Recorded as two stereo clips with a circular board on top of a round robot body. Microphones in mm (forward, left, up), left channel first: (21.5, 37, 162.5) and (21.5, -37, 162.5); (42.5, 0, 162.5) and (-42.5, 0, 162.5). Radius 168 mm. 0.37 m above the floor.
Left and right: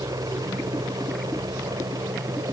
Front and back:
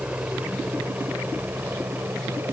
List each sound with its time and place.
0.0 s a helicopter: 105° right; by 2.5 s 115° right